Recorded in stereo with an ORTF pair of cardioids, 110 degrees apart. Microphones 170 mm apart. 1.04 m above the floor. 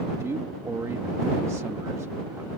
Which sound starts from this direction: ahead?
A man speaking, at 0.2 s.